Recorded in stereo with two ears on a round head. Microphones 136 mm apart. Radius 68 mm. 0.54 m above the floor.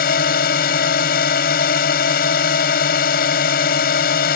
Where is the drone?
65° left (ahead or behind).